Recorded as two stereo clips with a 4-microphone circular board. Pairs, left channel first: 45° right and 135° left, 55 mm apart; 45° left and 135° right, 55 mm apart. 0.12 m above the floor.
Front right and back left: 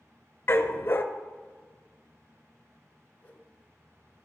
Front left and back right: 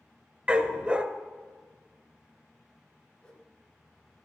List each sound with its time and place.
0.5 s a dog barking: 75° right, 0.6 m
3.2 s a whoosh: 15° right, 1.3 m